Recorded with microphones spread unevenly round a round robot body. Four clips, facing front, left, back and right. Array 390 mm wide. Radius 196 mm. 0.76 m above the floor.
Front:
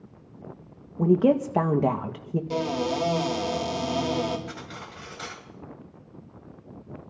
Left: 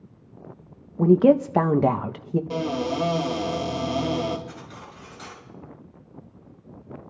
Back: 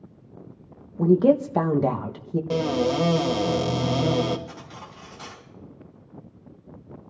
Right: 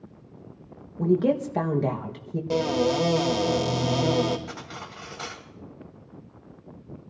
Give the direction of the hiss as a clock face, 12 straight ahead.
No hiss in this recording.